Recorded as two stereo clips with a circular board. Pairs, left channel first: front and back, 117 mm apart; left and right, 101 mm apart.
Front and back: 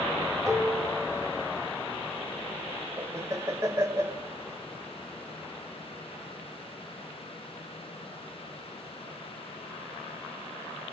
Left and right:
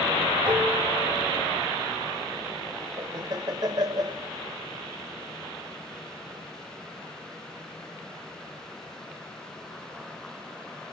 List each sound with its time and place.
0.5 s dishes clattering: 115° right, 2.5 m
3.0 s laughter: 120° right, 1.3 m